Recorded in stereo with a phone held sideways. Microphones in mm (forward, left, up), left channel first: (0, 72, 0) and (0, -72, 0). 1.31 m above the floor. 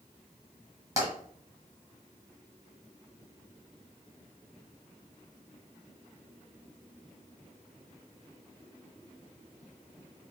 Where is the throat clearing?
I don't hear throat clearing.